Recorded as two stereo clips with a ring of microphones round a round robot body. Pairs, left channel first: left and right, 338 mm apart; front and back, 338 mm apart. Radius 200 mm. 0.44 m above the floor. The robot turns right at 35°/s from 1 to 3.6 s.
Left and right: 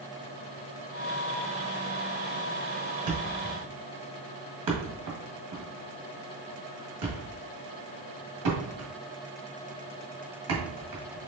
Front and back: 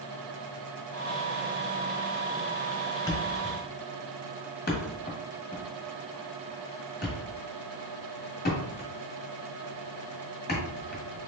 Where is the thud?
80° right, 1.7 m; by 11.2 s 60° right, 1.7 m.